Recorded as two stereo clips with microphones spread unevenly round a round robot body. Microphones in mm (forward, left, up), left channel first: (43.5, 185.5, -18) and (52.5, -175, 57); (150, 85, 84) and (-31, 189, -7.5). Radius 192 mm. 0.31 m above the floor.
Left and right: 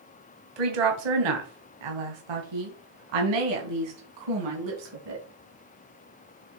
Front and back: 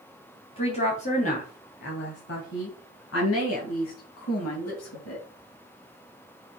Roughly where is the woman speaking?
Right.